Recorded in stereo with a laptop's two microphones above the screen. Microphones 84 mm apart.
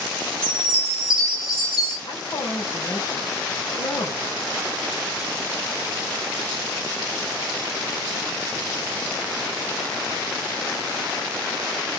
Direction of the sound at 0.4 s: 50° left (ahead or behind).